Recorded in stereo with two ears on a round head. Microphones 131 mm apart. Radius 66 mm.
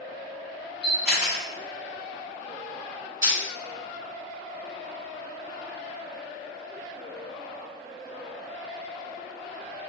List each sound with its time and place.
0.8 s a camera shutter: 5° right (ahead or behind), 1.3 m
3.2 s crushing: 25° right (ahead or behind), 1.3 m